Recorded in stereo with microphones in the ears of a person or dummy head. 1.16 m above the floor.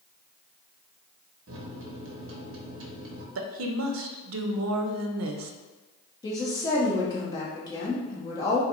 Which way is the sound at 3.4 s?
75° right (ahead or behind).